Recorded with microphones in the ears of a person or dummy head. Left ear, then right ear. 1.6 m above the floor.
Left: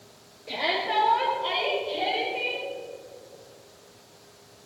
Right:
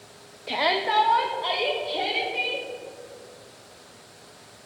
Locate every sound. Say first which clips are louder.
0.5 s a shout: right 3 dB; 35° right (ahead or behind), 0.5 m; by 2.7 s 70° right (ahead or behind), 3.5 m